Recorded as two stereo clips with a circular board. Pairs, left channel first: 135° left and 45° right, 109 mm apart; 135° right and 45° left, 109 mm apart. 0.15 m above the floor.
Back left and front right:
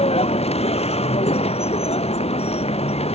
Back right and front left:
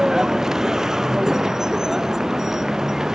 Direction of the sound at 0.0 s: 130° left.